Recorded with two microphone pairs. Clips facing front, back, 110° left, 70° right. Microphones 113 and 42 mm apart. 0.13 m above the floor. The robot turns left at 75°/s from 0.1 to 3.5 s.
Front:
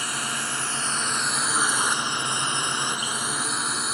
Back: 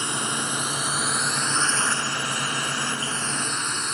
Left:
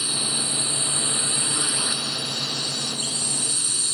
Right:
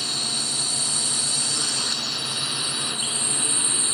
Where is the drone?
Straight behind; by 3.9 s 75° right.